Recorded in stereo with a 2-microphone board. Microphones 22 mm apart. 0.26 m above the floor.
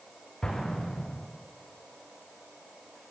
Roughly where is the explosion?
Left.